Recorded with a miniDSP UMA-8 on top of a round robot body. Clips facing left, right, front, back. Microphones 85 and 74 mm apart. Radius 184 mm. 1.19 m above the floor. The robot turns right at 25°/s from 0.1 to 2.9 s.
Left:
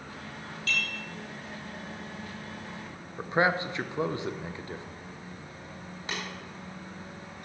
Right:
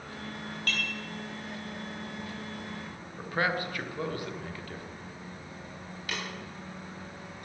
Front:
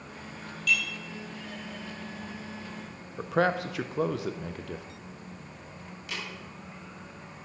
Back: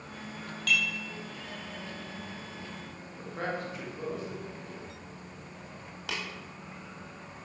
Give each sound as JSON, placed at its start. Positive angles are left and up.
{"t": 0.7, "sound": "dishes clattering", "azimuth_deg": -135, "distance_m": 4.5}
{"t": 3.2, "sound": "a man speaking", "azimuth_deg": 20, "distance_m": 1.1}
{"t": 6.1, "sound": "tapping", "azimuth_deg": 155, "distance_m": 3.0}